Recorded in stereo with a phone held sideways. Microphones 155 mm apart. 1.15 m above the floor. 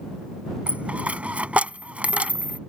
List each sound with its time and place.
0.7 s a dropped coin: 10° right (ahead or behind)